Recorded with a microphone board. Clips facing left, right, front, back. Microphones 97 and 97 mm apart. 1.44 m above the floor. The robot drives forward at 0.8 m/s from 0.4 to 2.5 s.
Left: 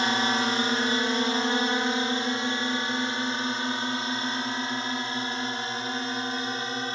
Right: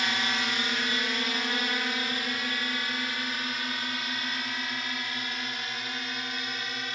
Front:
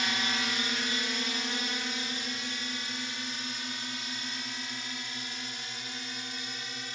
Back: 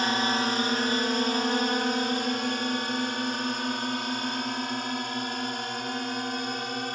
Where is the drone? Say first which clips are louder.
Left 6 dB, back 7 dB; 140° left; by 7.0 s 145° left.